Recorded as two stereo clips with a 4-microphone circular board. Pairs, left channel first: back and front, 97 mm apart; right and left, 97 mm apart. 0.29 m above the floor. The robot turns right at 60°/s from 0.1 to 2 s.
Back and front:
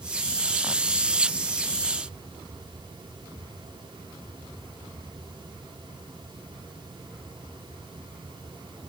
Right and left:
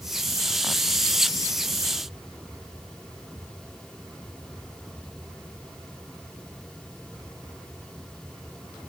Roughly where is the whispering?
No whispering in this recording.